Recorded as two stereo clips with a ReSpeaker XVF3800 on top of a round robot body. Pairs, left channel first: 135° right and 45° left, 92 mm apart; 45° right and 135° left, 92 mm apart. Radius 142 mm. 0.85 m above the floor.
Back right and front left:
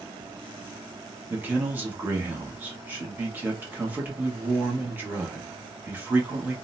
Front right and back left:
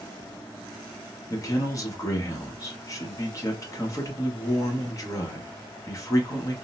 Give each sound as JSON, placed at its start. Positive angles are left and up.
{"t": 1.3, "sound": "a man speaking", "azimuth_deg": -15, "distance_m": 1.2}